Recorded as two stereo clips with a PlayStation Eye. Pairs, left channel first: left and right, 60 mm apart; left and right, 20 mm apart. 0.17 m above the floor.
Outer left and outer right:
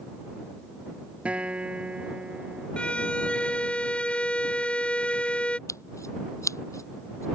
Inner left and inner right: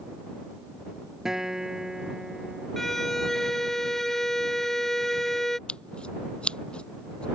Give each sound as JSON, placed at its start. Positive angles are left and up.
{"t": 1.2, "sound": "a guitar", "side_deg": -20}
{"t": 2.8, "sound": "a violin", "side_deg": 15}
{"t": 5.7, "sound": "scissors", "side_deg": 55}